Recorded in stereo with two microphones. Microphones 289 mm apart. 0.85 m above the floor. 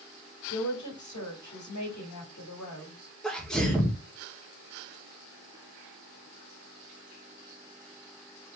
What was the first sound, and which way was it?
A woman speaking, 75° left (ahead or behind).